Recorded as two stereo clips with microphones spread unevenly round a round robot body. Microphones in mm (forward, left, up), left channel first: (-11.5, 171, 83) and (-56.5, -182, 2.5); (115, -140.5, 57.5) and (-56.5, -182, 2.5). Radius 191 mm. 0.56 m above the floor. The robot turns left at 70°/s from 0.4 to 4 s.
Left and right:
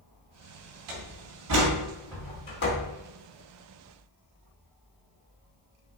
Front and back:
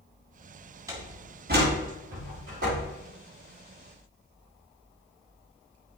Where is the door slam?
95° right, 4.5 m; by 2.9 s 125° left, 4.5 m.